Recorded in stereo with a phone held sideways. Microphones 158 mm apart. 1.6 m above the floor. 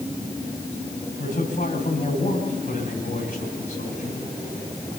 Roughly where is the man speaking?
Left.